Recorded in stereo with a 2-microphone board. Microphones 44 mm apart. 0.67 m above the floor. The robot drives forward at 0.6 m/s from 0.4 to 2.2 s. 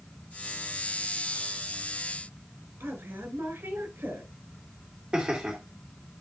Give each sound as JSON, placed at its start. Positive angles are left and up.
{"t": 2.8, "sound": "a woman speaking", "side_deg": -80, "distance_m": 4.5}
{"t": 5.1, "sound": "laughter", "side_deg": -30, "distance_m": 1.7}